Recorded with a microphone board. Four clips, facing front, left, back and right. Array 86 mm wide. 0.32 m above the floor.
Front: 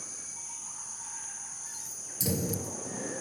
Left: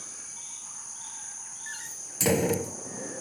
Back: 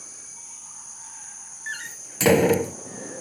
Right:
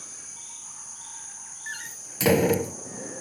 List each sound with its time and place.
1.7 s a door slam: 165° right